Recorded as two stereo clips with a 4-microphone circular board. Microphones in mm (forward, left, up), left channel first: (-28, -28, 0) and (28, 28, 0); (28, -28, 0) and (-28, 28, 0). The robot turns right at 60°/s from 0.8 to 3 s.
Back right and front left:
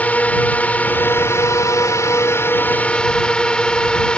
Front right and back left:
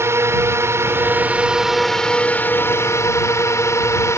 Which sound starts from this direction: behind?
A drone, at 0.0 s.